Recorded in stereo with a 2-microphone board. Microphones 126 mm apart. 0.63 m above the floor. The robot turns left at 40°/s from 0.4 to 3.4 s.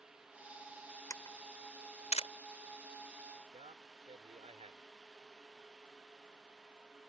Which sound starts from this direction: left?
A camera shutter, at 1.1 s.